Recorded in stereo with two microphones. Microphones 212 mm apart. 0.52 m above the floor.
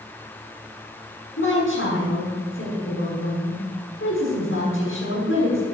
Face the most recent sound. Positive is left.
turn(degrees=65)  # may be behind; listen again after turning